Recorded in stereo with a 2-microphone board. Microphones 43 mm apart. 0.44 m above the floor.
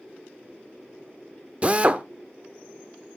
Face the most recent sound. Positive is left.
turn(degrees=-30)  # may be behind; listen again after turning